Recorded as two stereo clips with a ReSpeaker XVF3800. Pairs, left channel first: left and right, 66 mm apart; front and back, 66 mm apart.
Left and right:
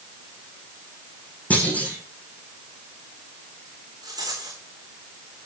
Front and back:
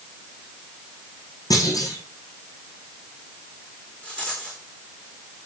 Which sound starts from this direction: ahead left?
A clunk, at 1.5 s.